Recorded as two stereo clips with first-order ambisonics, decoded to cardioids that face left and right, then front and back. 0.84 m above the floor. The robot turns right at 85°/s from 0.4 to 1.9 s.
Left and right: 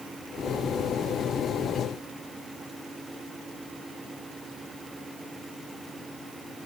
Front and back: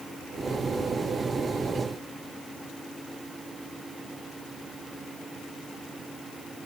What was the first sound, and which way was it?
Only background noise.